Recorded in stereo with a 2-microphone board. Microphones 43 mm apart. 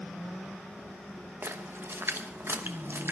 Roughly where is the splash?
Right.